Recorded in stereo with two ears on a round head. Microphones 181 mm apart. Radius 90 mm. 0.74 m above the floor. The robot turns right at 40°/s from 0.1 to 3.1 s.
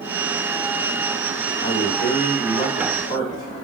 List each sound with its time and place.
1.6 s a man speaking: 60° left (ahead or behind), 2 m; by 3.6 s 25° left (ahead or behind), 2 m